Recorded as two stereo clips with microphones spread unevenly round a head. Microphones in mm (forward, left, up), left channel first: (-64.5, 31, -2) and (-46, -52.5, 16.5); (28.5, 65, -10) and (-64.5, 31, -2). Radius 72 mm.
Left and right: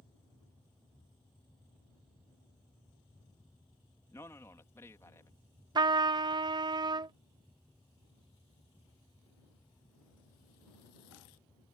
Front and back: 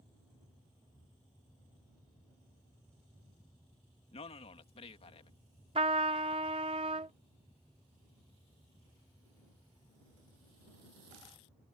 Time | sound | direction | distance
4.1 | a man speaking | 35° left | ?
5.8 | a trumpet | 110° right | ?